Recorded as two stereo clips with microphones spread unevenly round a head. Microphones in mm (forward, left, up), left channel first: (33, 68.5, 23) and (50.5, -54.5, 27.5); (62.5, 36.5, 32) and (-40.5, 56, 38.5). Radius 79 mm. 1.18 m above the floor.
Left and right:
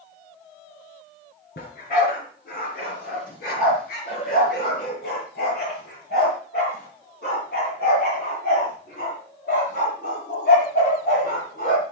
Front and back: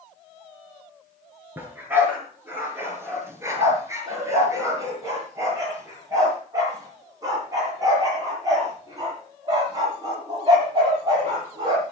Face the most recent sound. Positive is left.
turn(degrees=120)